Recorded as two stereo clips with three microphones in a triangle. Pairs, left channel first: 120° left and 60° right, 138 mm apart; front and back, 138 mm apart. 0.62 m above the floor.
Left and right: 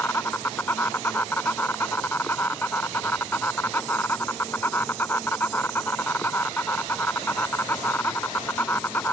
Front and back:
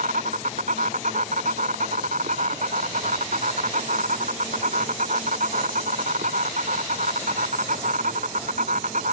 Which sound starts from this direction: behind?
An insect, at 0.0 s.